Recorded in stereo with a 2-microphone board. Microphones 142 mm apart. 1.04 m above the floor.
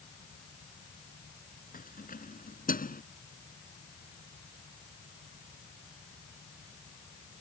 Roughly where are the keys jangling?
Left.